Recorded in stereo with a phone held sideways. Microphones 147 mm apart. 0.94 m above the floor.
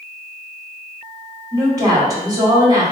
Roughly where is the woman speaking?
Right.